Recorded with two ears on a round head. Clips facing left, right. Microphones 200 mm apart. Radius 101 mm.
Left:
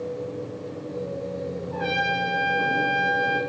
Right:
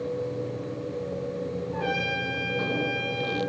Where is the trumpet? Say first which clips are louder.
Left 2 dB; 85° left, 2.5 m.